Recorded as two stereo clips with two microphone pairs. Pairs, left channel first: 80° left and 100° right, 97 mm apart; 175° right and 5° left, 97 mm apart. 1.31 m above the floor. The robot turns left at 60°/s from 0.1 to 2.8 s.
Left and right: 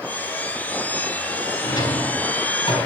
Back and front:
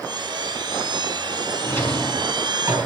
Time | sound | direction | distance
1.6 | a drawer | 130° left | 3.5 m